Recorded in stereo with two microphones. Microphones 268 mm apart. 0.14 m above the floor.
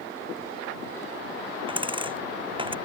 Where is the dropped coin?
20° right (ahead or behind).